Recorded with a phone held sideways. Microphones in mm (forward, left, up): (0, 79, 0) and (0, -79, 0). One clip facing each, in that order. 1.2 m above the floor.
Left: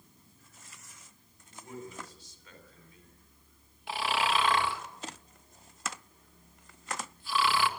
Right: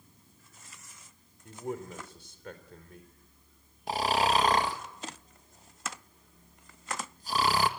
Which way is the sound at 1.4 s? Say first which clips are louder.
Right 7 dB; 65° right (ahead or behind).